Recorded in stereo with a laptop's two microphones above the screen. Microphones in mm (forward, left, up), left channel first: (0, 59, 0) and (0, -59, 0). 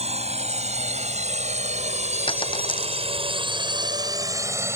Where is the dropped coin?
45° left (ahead or behind).